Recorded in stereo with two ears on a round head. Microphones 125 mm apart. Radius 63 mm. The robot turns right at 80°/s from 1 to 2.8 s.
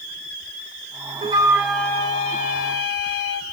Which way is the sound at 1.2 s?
40° right.